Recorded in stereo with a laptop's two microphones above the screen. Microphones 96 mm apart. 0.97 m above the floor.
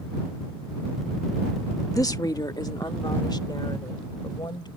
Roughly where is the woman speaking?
Left.